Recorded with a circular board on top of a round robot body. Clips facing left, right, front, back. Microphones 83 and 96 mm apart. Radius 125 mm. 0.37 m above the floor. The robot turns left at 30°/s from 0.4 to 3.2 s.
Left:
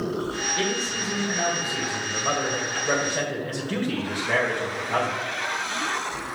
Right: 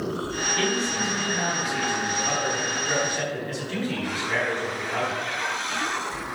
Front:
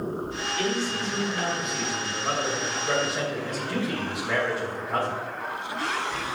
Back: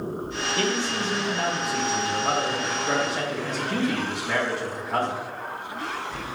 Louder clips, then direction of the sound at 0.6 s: Right 4 dB, back 1 dB; 155° left.